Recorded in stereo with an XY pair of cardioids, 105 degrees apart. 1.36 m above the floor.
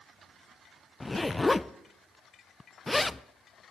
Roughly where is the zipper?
Ahead.